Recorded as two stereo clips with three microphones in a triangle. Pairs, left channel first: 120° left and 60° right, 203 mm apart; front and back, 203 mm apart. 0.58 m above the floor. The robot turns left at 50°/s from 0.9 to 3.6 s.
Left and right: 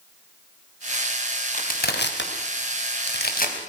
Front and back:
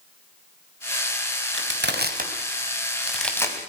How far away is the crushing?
About 3 m.